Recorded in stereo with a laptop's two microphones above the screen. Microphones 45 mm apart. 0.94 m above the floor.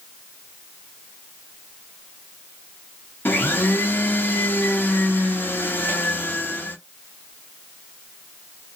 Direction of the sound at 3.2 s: 50° left (ahead or behind).